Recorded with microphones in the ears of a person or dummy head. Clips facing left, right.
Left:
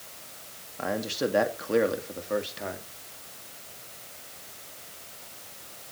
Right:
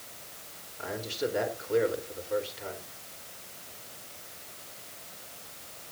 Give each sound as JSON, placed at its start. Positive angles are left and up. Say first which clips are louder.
{"t": 0.8, "sound": "a man speaking", "louder": "left 4 dB", "side_deg": 70, "distance_m": 2.5}